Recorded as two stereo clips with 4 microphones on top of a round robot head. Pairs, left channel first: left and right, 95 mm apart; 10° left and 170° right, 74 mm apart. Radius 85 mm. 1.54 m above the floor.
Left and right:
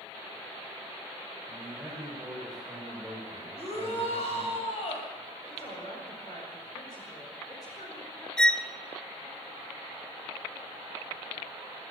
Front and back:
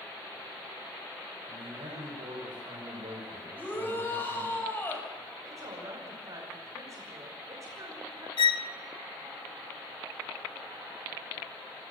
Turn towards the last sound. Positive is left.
turn(degrees=5)